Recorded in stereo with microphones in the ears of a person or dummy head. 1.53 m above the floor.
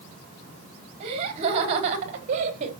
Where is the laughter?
35° right (ahead or behind), 4.5 m; by 2.7 s 40° right (ahead or behind), 3 m.